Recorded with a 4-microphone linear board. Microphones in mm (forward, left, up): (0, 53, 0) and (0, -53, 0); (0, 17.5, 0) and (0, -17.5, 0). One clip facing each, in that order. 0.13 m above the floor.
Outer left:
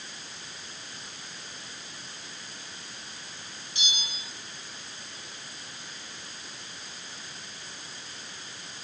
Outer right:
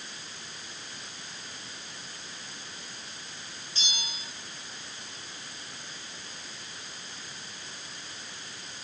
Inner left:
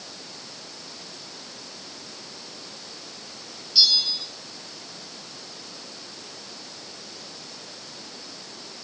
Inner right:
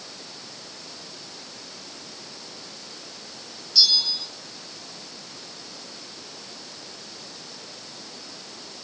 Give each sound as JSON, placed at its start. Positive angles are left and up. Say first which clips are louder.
{"t": 3.8, "sound": "a bell", "louder": "outer left 1 dB, even", "side_deg": 15, "distance_m": 3.0}